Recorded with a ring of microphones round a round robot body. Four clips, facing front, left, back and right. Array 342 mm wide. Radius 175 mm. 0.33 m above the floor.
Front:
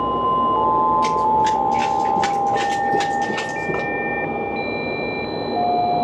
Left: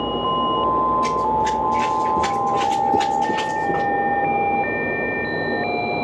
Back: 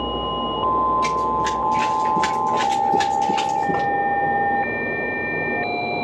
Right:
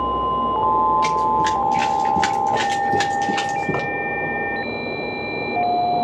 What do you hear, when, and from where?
1.0 s running footsteps: 95° right, 4 m; by 3.9 s 90° right, 5.5 m